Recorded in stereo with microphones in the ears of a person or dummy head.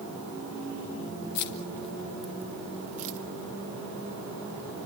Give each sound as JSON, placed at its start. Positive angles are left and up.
{"t": 1.4, "sound": "keys jangling", "side_deg": 60, "distance_m": 1.1}